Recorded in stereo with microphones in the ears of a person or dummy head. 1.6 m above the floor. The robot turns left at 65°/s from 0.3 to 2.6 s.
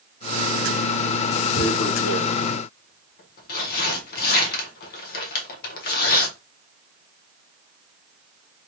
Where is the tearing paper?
50° left (ahead or behind), 1.1 m; by 6.3 s 55° left (ahead or behind), 1.1 m.